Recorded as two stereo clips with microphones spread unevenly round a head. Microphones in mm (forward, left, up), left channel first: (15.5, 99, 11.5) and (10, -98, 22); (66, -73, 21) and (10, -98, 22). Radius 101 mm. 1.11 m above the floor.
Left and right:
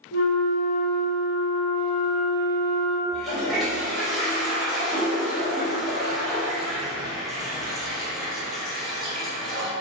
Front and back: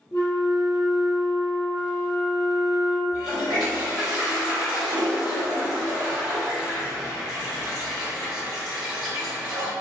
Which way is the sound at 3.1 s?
Straight behind.